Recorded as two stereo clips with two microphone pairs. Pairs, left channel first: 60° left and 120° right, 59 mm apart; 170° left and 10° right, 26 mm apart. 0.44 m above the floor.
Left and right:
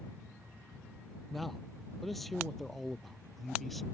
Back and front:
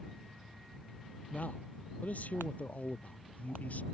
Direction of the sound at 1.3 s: 150° left.